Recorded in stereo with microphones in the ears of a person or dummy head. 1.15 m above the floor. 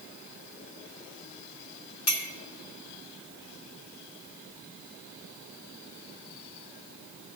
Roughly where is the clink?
Left.